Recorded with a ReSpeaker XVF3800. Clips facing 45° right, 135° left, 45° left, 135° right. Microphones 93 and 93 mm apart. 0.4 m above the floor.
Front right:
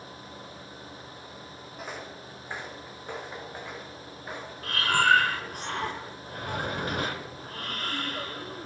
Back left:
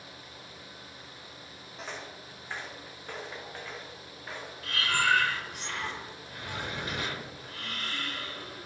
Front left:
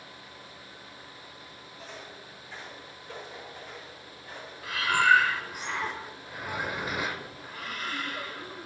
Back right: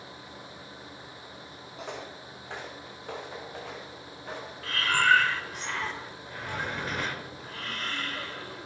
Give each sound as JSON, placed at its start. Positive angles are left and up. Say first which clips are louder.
{"t": 1.8, "sound": "footsteps", "louder": "front right 2 dB, back right 6 dB", "azimuth_deg": -130, "distance_m": 1.0}
{"t": 4.6, "sound": "breathing", "louder": "front right 5 dB, front left 1 dB", "azimuth_deg": -35, "distance_m": 0.9}